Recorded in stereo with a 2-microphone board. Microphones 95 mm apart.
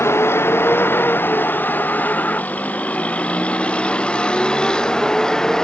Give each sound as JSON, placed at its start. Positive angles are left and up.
{"t": 0.0, "sound": "a vehicle", "side_deg": 25}